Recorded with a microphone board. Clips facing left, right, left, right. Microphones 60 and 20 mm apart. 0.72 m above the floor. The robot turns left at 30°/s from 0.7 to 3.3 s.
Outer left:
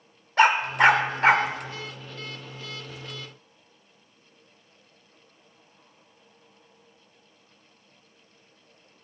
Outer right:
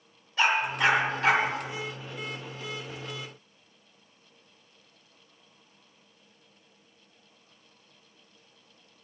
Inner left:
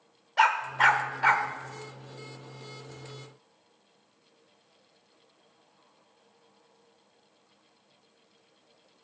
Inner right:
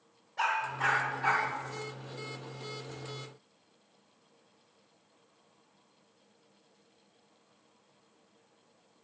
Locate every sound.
0.4 s a dog barking: 60° left (ahead or behind), 1.0 m; by 1.5 s 35° left (ahead or behind), 1.0 m